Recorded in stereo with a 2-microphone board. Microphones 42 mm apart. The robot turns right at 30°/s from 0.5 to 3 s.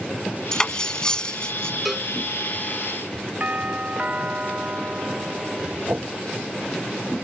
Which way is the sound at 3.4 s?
40° right (ahead or behind).